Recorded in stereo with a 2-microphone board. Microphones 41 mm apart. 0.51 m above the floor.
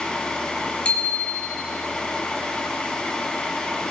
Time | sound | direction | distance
0.8 | a bicycle bell | 30° left (ahead or behind) | 2.5 m